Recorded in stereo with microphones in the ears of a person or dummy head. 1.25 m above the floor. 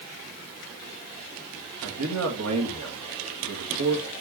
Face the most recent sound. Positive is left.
turn(degrees=-80)